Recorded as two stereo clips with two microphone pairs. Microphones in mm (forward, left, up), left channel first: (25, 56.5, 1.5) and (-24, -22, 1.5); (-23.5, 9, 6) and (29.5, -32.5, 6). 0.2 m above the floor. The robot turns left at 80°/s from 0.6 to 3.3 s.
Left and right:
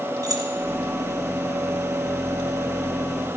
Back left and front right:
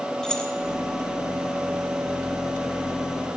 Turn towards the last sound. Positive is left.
turn(degrees=0)